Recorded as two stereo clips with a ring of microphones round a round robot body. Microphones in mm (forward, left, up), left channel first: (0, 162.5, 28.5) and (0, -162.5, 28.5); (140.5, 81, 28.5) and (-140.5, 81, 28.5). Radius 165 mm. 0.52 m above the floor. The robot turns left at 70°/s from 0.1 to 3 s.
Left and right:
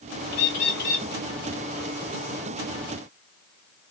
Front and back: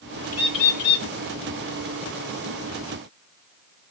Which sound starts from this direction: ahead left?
A bird, at 0.3 s.